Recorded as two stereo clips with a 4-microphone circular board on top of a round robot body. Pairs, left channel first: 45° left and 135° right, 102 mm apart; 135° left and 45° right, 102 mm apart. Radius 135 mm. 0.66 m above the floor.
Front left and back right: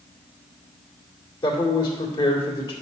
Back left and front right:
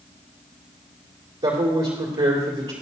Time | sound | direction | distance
1.4 | a man speaking | 10° right | 2 m